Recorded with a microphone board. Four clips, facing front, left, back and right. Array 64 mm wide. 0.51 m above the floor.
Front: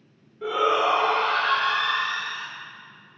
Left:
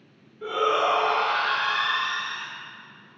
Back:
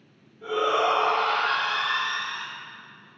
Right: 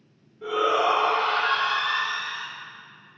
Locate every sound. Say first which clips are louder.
0.4 s a shout: right 1 dB, front 2 dB; 15° left, 1.9 m; by 2.5 s 5° left, 3.5 m